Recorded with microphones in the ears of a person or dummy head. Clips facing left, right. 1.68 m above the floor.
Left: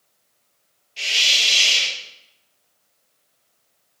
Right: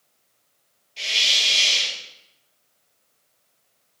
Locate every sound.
1.0 s a hiss: 5° left (ahead or behind), 2.5 m